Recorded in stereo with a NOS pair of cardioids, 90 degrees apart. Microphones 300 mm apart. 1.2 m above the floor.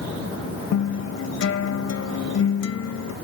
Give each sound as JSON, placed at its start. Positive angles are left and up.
{"t": 0.7, "sound": "a guitar", "azimuth_deg": 55}